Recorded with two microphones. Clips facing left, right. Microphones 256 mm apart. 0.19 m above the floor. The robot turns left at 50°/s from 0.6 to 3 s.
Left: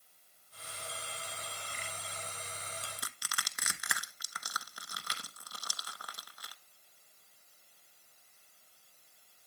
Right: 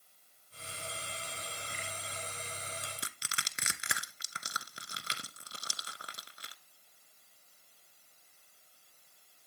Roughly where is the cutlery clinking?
I don't hear cutlery clinking.